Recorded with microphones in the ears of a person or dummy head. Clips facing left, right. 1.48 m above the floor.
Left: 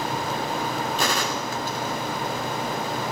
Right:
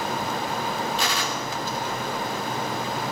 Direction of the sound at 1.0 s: 45° left (ahead or behind).